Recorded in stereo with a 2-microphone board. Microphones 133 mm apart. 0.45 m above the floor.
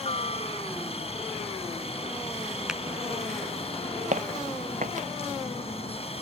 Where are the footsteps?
70° right (ahead or behind).